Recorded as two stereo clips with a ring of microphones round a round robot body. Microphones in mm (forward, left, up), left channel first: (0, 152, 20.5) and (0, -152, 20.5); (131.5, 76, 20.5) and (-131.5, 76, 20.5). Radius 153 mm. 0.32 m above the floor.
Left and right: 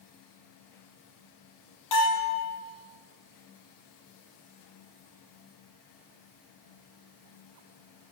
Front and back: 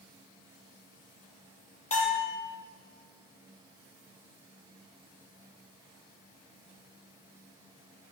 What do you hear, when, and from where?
1.9 s a bell: 60° left, 6 m